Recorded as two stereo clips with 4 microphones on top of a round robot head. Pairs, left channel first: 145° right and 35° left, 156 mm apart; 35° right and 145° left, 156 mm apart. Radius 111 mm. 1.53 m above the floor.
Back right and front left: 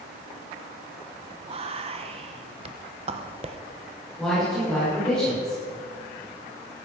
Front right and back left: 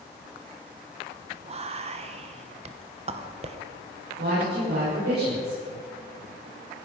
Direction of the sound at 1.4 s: 90° left.